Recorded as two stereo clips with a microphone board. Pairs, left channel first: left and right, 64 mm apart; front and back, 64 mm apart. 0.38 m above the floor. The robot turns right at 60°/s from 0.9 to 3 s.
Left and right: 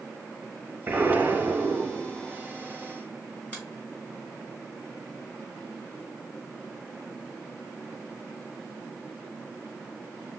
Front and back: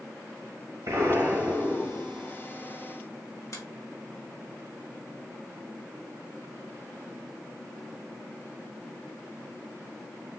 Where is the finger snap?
20° left, 3 m.